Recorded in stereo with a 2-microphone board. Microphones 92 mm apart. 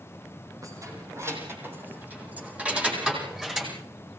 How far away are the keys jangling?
About 4.5 m.